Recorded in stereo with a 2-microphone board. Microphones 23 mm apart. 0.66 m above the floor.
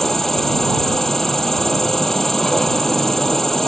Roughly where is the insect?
Centre.